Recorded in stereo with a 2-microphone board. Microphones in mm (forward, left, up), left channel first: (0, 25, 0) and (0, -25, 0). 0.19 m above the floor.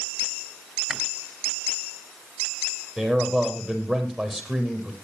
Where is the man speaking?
5° right (ahead or behind), 6 m.